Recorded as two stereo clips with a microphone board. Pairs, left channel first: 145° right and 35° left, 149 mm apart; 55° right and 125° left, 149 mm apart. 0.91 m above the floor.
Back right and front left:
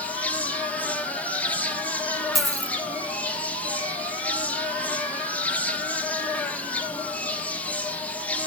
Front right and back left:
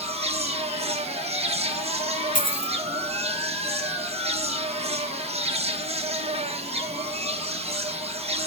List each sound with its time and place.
0.0 s an insect: 140° left, 1.1 m
2.4 s a dropped coin: 55° right, 1.4 m